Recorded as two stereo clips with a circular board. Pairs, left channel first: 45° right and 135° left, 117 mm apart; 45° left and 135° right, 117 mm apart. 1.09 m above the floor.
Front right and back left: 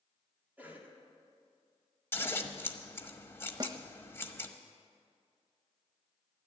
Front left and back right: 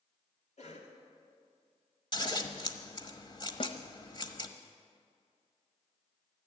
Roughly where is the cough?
Ahead left.